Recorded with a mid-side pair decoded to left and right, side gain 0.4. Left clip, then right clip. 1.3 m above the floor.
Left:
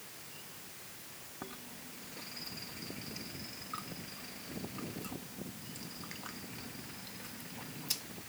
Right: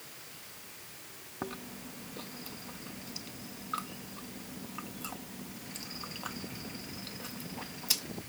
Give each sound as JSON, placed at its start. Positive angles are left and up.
{"t": 1.4, "sound": "chewing", "azimuth_deg": -50}